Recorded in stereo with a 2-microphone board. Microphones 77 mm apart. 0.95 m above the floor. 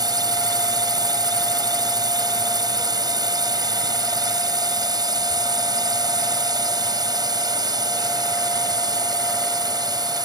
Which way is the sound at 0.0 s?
60° right (ahead or behind).